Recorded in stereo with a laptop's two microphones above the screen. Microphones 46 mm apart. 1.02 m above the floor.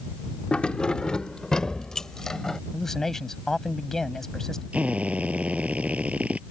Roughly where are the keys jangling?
Left.